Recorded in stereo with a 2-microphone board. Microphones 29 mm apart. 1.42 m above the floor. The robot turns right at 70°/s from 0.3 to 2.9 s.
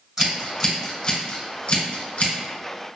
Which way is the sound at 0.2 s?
5° right (ahead or behind).